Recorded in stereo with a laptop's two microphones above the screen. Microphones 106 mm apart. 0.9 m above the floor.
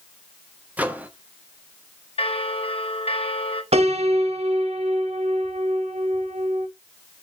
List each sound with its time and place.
0.8 s a microwave: 15° right (ahead or behind), 1.3 m
2.2 s a bell: 65° left (ahead or behind), 1.5 m
3.7 s a piano: 70° right (ahead or behind), 1.4 m